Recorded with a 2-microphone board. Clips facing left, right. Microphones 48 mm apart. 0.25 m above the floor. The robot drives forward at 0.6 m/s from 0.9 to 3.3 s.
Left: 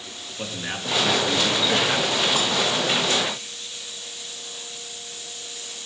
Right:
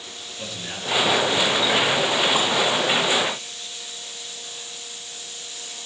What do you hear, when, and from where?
0.4 s a man speaking: 40° left (ahead or behind), 4 m; by 2.2 s 45° left (ahead or behind), 3.5 m